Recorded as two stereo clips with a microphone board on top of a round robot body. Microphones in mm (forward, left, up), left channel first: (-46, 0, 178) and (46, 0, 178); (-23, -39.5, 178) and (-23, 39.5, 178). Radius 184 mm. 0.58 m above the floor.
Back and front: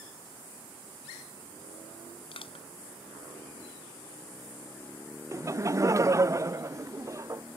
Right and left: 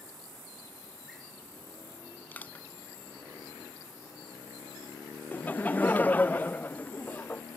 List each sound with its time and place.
2.3 s crushing: 160° right
5.3 s laughter: 35° right